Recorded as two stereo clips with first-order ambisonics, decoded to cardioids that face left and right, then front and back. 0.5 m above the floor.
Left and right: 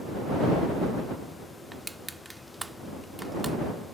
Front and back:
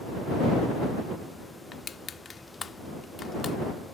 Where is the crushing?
20° right.